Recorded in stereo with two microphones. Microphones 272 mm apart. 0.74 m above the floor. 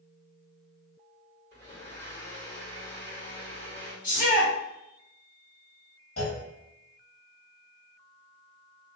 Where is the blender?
35° left (ahead or behind), 1.5 m.